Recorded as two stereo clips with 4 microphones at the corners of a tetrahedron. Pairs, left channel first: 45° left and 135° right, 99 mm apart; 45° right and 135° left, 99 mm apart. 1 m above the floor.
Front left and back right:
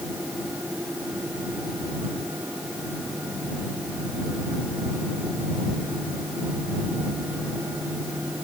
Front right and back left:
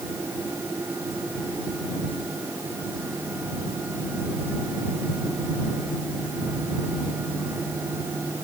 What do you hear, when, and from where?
Only background noise.